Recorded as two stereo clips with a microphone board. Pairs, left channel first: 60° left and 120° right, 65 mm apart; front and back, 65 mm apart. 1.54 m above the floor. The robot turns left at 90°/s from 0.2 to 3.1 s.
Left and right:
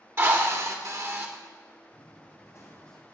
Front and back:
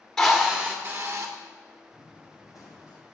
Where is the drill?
80° right, 1.7 m; by 1.3 s straight behind, 1.7 m.